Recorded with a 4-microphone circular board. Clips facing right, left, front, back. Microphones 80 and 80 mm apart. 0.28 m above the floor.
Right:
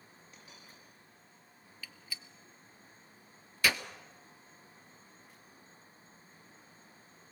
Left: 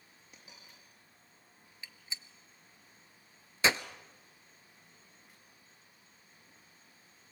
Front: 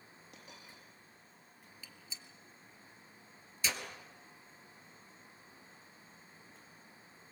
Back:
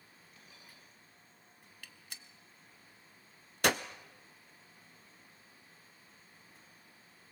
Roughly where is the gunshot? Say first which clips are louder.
Even, back 1 dB; behind left.